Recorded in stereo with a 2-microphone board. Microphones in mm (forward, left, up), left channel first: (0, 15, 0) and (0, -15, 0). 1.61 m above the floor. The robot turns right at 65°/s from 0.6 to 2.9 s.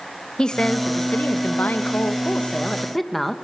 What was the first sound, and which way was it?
A woman speaking, 25° left.